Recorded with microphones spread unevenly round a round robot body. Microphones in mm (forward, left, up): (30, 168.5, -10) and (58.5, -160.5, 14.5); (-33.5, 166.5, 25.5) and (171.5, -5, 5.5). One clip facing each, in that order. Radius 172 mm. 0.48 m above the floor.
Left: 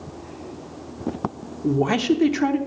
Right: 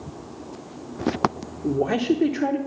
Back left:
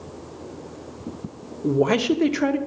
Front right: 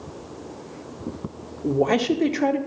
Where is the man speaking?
70° left, 0.9 m.